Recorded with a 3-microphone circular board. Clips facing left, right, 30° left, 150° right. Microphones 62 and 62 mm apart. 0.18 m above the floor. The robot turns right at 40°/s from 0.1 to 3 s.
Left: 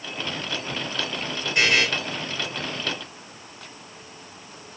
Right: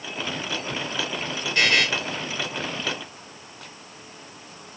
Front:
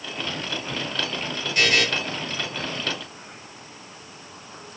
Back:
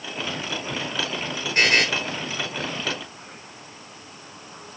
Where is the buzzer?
160° left, 2.5 m; by 1.9 s 175° left, 2.5 m.